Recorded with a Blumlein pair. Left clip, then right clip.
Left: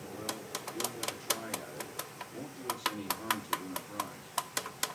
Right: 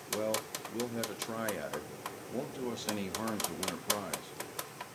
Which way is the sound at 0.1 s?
55° right.